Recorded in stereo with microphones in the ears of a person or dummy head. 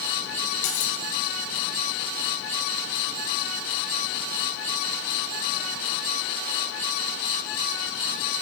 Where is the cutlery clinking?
75° left (ahead or behind), 3 m.